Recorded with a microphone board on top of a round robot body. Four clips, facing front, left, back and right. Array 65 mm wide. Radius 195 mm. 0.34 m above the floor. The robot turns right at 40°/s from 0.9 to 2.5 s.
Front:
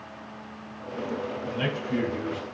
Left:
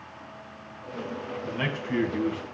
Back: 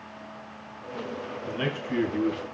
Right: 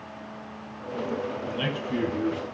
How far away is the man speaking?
About 3.5 m.